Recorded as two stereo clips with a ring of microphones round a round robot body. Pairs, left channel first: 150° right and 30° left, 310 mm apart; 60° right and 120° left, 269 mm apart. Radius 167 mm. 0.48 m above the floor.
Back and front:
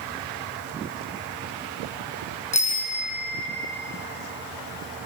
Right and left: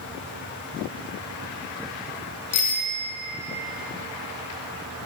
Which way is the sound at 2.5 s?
80° right.